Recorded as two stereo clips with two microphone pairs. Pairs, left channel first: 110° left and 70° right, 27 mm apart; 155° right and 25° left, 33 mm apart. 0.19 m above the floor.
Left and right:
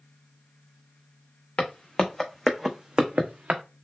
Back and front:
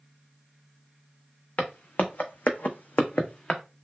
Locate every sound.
1.6 s footsteps: 160° left, 0.8 m; by 3.6 s 95° right, 0.7 m